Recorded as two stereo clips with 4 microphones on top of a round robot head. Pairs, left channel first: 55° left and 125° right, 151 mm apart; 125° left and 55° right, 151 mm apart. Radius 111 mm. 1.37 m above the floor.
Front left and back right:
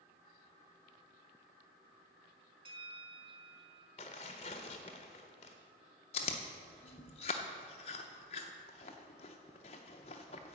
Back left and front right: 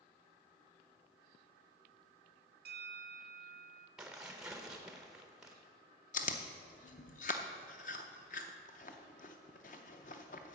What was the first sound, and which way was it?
A bell, 70° right.